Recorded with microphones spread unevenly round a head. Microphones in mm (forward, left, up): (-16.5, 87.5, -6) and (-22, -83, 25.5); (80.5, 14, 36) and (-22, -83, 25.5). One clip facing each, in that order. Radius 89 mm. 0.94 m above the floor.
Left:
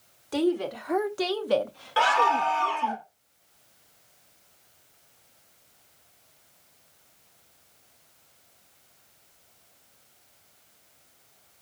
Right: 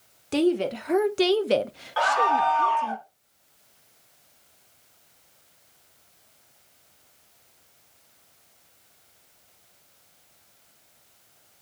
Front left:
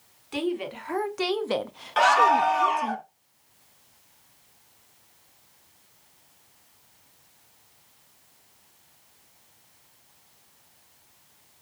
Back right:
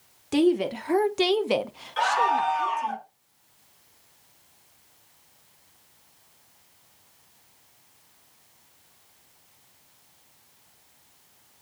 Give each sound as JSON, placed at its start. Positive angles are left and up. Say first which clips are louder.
{"t": 0.3, "sound": "a woman speaking", "louder": "right 3 dB, back right 8 dB", "azimuth_deg": -155, "distance_m": 1.2}
{"t": 2.0, "sound": "a scream", "louder": "right 1 dB, front left 4 dB", "azimuth_deg": 30, "distance_m": 3.0}